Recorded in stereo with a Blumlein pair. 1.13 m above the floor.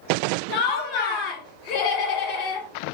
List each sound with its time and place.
0.5 s laughter: 40° left, 1.5 m